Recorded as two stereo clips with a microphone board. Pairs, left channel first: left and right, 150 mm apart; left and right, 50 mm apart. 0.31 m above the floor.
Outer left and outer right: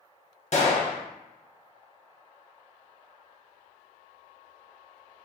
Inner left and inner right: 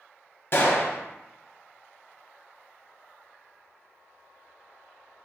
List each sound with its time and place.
0.5 s a gunshot: 50° left (ahead or behind), 0.5 m